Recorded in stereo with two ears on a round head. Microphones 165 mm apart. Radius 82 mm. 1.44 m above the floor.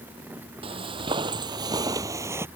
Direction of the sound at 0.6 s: 30° right (ahead or behind).